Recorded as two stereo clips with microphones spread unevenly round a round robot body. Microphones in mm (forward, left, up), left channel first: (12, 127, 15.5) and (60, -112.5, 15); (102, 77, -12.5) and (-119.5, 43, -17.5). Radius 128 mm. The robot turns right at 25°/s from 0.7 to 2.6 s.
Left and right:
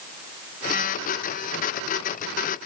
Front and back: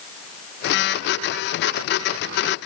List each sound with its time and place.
Only background noise.